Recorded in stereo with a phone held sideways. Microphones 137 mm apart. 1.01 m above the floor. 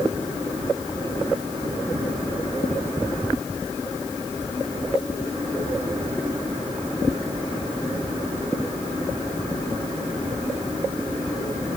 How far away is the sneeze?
I don't hear a sneeze.